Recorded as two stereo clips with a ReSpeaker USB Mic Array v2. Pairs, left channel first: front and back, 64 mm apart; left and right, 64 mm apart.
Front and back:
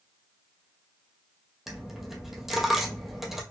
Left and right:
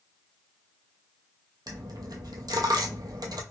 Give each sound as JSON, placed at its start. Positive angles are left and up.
{"t": 1.7, "sound": "a dropped coin", "azimuth_deg": -90, "distance_m": 0.7}